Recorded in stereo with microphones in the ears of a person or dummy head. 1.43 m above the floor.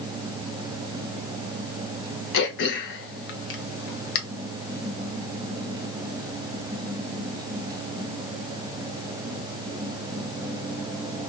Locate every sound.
2.3 s throat clearing: 55° left (ahead or behind), 0.8 m